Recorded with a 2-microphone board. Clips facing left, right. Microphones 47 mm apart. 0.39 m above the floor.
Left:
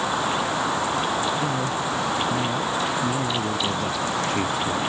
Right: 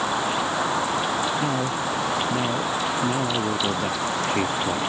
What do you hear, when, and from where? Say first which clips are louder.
1.4 s a man speaking: even; 20° right (ahead or behind)